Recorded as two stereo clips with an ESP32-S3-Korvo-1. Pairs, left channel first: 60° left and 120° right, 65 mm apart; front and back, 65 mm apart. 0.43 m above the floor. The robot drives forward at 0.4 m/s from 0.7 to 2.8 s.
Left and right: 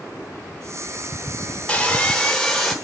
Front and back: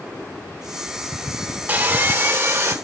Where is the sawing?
125° left, 1.1 m; by 2.8 s 145° left, 1.3 m.